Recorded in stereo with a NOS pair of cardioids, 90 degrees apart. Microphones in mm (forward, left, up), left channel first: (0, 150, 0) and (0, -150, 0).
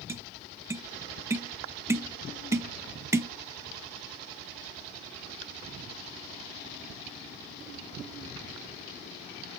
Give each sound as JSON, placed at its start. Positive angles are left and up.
{"t": 0.1, "sound": "tapping", "azimuth_deg": -10, "distance_m": 0.5}